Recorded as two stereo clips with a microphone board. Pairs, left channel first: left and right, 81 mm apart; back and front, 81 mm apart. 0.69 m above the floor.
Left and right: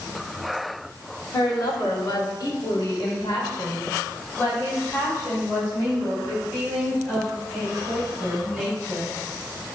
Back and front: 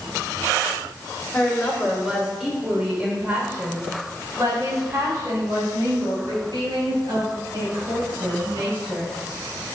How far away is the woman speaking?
About 2.5 m.